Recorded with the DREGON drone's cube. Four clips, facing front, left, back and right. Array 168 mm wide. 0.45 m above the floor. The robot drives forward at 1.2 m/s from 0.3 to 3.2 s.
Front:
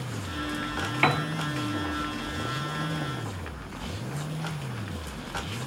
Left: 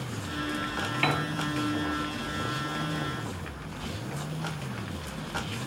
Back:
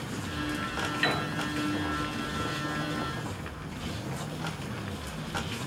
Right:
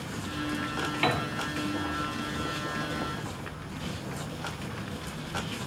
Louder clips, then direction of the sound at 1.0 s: Even, front 6 dB; 5° right.